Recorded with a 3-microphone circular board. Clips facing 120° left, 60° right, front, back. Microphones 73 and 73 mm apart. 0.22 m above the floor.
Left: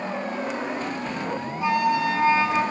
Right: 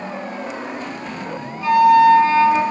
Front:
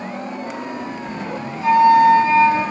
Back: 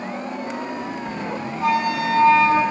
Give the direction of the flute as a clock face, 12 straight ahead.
6 o'clock.